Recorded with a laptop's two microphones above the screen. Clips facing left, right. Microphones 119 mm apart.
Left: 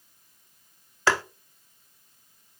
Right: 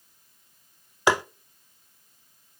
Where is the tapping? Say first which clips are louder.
Right 2 dB; 15° right (ahead or behind), 0.5 m.